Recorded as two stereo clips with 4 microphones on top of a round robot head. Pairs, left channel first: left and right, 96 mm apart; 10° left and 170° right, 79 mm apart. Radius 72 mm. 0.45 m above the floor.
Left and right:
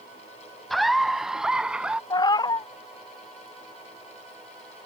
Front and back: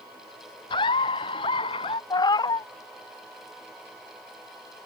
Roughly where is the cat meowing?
Ahead left.